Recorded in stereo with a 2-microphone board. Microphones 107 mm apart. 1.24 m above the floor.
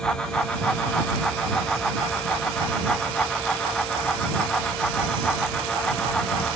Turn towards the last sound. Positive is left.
No sound to turn to.